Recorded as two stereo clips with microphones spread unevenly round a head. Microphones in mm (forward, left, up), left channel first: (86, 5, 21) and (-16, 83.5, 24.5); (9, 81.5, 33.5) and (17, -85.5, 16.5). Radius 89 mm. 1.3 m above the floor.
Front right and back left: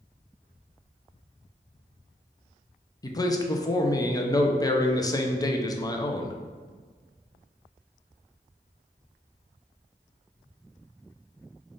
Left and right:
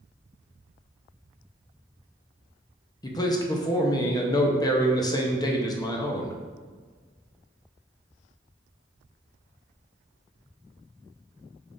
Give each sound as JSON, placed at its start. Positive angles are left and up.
{"t": 3.0, "sound": "a man speaking", "azimuth_deg": 25, "distance_m": 0.6}